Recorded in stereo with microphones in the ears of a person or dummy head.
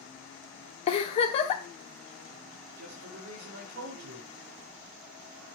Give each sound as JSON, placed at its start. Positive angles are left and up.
{"t": 0.9, "sound": "a giggle", "side_deg": 30, "distance_m": 0.9}
{"t": 2.8, "sound": "a man speaking", "side_deg": -60, "distance_m": 5.0}